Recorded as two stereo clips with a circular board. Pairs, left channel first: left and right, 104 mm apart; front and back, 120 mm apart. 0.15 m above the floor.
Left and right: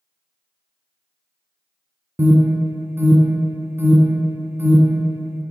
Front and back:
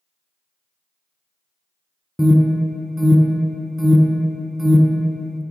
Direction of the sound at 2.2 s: 85° right.